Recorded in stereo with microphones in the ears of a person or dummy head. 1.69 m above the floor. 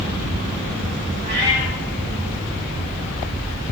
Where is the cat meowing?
50° right (ahead or behind), 1.8 m.